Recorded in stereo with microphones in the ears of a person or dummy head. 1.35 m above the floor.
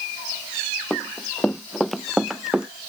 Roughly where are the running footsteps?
Centre.